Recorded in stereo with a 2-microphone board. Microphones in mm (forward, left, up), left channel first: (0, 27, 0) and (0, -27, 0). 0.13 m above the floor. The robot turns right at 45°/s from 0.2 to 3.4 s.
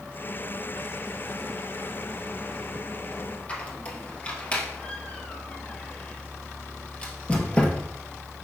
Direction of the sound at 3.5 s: 25° left (ahead or behind).